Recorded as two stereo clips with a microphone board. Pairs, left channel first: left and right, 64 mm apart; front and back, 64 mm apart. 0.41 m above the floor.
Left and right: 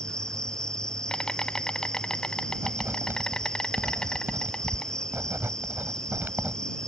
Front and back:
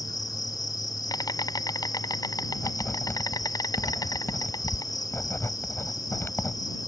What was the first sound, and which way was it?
An insect, 10° left.